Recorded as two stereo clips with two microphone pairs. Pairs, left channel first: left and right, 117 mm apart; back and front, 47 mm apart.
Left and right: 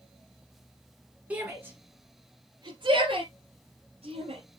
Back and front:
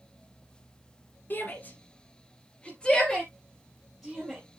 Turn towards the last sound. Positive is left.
turn(degrees=-80)